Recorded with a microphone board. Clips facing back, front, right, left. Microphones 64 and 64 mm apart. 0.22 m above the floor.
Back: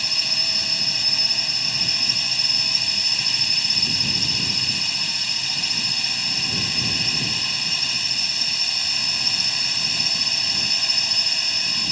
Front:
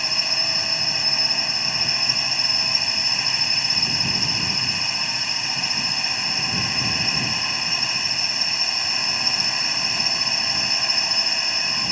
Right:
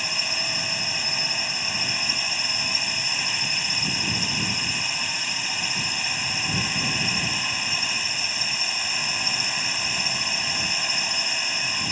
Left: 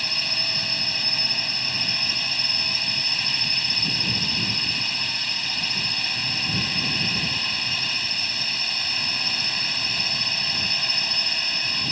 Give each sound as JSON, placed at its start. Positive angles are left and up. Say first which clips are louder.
{"t": 0.0, "sound": "a drone", "louder": "front 3 dB, right 1 dB", "azimuth_deg": -30}